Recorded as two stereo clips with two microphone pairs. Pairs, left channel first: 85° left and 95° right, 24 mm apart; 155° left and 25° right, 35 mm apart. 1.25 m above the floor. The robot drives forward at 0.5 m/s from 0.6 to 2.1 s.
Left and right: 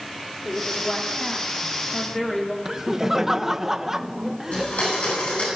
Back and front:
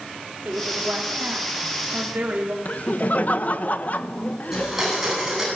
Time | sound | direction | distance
0.5 | a woman speaking | 5° left | 3 m
2.6 | laughter | 170° right | 1.1 m
4.5 | a blender | 60° left | 10 m